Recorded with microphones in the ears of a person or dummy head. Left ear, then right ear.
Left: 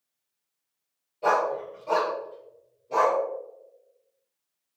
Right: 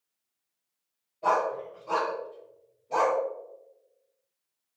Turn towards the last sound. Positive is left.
turn(degrees=-5)  # may be behind; listen again after turning